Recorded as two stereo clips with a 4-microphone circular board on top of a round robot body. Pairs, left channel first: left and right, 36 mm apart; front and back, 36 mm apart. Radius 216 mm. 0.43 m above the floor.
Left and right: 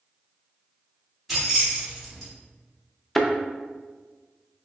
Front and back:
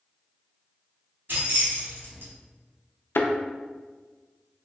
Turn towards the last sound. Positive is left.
turn(degrees=10)